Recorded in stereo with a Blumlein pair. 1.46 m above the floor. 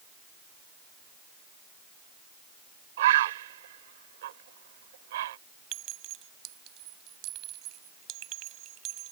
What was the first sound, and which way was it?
A bird, 55° right.